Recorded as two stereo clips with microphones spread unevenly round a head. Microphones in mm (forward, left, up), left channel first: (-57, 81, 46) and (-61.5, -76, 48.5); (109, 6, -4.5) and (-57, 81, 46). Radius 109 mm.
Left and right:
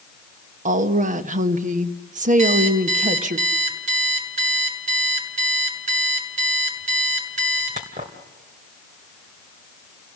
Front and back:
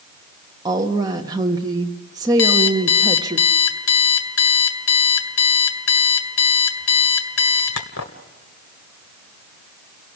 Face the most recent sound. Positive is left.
turn(degrees=-35)